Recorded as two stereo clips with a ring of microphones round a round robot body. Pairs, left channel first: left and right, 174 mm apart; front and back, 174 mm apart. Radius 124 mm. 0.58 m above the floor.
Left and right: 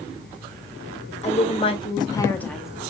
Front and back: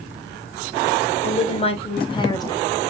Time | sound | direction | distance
1.2 | a woman speaking | 45° left | 1.5 m